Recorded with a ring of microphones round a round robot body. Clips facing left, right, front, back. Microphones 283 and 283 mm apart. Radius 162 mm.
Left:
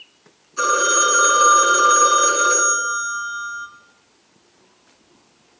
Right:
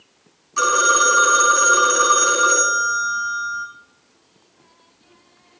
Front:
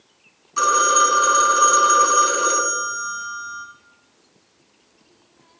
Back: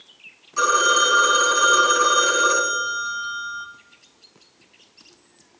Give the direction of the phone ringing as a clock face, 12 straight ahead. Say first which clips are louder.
Even, even; 2 o'clock.